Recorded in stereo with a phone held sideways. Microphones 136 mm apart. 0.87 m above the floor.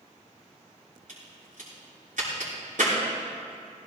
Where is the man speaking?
No man speaking in this recording.